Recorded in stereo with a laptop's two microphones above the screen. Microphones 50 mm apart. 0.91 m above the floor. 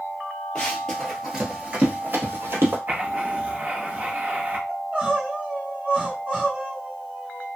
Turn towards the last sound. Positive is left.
turn(degrees=-30)  # may be behind; listen again after turning